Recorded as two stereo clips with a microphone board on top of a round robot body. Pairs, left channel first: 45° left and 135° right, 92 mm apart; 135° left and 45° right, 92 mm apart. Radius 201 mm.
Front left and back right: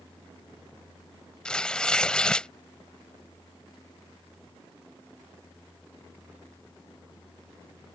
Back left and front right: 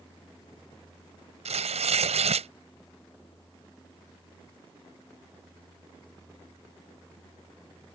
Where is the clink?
I don't hear a clink.